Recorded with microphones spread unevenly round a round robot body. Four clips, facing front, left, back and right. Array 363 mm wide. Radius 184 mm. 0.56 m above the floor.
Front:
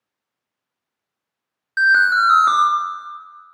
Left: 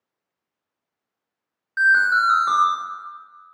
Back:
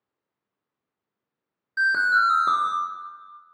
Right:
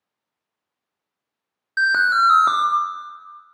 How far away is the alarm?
About 0.9 m.